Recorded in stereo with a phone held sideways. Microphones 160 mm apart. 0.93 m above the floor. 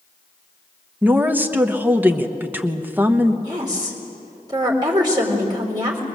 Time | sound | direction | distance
1.0 | a woman speaking | 10° right (ahead or behind) | 1.1 m
3.4 | a woman speaking | 25° right (ahead or behind) | 4 m